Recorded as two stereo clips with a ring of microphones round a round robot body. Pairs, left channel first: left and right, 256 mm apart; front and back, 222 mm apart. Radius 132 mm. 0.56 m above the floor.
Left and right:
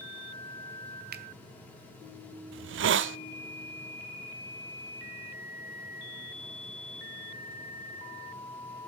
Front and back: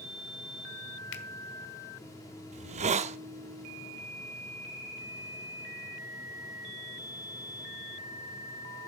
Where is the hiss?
125° right, 0.6 m.